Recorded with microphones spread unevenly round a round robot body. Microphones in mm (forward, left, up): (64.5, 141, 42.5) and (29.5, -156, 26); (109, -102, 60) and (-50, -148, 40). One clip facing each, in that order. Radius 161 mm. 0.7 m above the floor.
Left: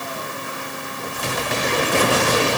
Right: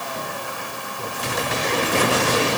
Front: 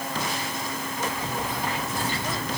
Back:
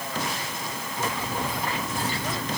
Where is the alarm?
I don't hear an alarm.